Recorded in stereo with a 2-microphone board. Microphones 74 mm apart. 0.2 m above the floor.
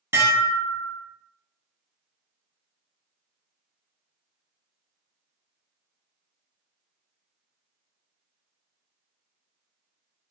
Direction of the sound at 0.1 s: 35° right (ahead or behind).